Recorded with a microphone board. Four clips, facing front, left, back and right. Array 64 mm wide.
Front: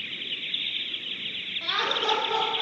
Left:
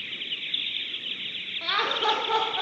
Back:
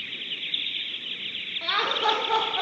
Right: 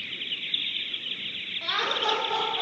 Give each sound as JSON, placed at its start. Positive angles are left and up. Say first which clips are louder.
{"t": 1.6, "sound": "laughter", "louder": "left 2 dB, back 3 dB", "azimuth_deg": 130, "distance_m": 0.9}